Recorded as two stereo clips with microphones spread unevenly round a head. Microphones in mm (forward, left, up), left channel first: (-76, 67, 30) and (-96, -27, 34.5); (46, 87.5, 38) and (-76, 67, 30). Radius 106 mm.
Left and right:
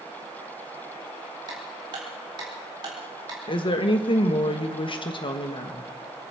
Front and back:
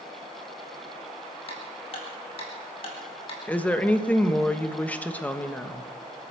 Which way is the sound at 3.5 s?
90° left.